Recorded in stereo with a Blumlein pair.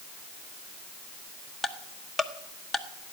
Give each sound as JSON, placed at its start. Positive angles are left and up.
{"t": 1.6, "sound": "ticking", "azimuth_deg": 0, "distance_m": 1.2}